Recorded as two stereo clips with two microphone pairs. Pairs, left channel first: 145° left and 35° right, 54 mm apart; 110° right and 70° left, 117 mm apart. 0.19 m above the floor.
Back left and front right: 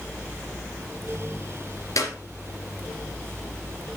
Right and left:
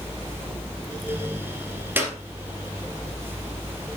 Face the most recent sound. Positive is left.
turn(degrees=140)